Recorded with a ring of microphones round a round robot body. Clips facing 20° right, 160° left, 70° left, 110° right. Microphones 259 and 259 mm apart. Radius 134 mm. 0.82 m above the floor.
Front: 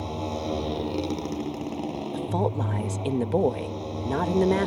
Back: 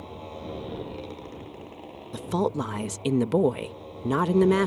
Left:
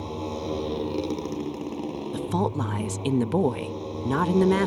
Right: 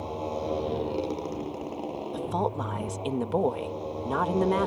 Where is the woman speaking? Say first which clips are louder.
Back 3 dB, left 3 dB; 95° left.